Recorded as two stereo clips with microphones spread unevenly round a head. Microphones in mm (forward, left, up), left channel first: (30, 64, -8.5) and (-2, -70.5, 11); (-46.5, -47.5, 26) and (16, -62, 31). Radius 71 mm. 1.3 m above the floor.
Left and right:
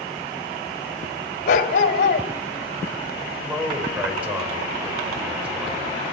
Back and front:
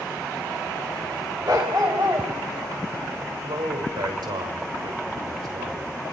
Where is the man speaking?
25° right, 6 m.